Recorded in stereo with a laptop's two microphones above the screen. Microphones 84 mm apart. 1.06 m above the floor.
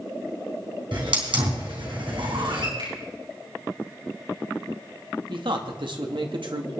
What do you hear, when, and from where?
0.9 s a hiss: 80° right, 3.5 m
2.8 s a finger snap: 85° right, 8.5 m
5.3 s a man speaking: 75° right (ahead or behind), 1.9 m